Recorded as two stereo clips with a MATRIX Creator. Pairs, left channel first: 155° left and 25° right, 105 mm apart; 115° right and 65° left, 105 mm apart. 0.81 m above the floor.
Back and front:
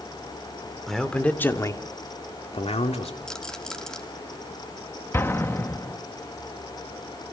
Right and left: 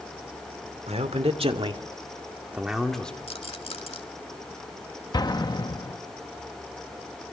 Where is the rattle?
120° right, 2 m.